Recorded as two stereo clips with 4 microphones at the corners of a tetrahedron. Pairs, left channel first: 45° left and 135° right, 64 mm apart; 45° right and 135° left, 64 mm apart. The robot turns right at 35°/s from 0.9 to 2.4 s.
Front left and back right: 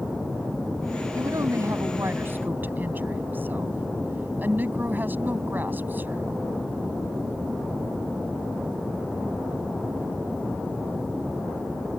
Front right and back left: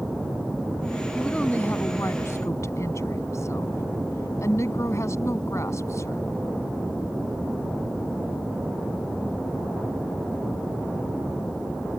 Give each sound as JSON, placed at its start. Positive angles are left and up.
{"t": 1.1, "sound": "a woman speaking", "azimuth_deg": -120}